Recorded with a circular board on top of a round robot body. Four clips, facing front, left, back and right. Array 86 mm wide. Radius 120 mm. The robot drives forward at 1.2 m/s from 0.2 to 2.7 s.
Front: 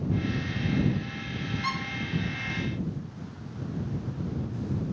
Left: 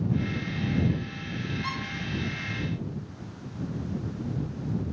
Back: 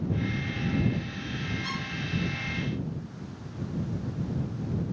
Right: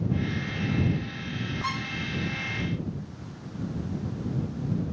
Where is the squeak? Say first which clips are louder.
Right 6 dB, front 4 dB; 10° right, 4 m.